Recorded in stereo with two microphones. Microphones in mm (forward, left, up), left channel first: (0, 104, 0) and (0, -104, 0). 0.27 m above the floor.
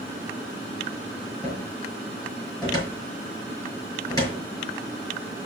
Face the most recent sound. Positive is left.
turn(degrees=20)  # may be behind; listen again after turning